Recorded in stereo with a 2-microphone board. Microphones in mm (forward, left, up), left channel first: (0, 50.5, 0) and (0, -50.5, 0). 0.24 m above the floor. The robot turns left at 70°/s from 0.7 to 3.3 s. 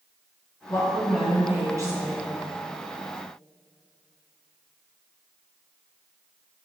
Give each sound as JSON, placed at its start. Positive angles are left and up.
{"t": 0.7, "sound": "a woman speaking", "azimuth_deg": 40, "distance_m": 2.5}